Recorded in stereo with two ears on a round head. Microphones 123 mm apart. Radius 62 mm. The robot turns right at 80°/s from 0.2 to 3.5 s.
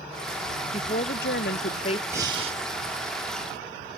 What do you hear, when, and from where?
0.7 s a woman speaking: 35° left; by 2.0 s 140° left
2.1 s breathing: 160° right; by 2.6 s 120° right